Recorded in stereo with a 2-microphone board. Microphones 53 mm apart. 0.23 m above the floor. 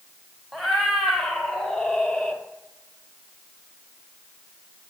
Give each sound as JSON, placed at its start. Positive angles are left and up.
{"t": 0.5, "sound": "a cat meowing", "side_deg": 5, "distance_m": 4.0}